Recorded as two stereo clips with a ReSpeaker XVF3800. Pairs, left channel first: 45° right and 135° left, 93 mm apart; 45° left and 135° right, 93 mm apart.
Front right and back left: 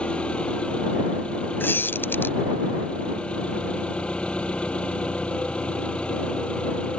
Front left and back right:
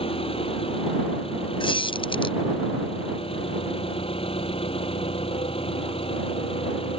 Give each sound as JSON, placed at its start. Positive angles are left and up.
{"t": 0.0, "sound": "an engine running", "azimuth_deg": 35}
{"t": 1.6, "sound": "a squeak", "azimuth_deg": 20}